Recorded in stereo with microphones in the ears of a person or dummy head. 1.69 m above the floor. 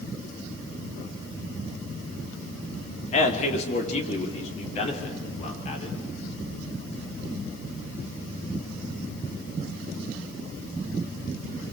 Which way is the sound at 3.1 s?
45° left (ahead or behind).